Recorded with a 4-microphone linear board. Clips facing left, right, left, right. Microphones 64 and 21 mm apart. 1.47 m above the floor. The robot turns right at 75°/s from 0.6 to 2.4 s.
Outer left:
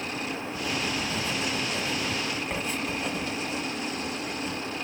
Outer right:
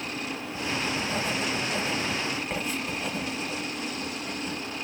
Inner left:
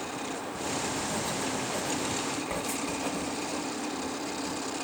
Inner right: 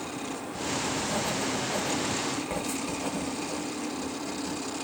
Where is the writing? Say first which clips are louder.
Outer right 1 dB, inner right 3 dB; 25° right (ahead or behind), 1.7 m; by 4.6 s 5° right (ahead or behind), 1.7 m.